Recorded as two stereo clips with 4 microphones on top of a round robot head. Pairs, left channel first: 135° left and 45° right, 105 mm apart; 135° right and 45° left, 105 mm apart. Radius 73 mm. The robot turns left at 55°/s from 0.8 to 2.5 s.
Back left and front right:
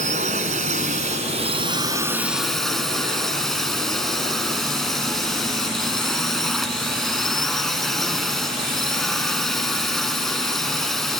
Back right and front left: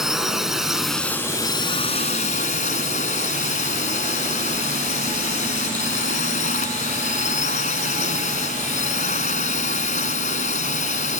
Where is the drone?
45° right; by 11.2 s 135° right.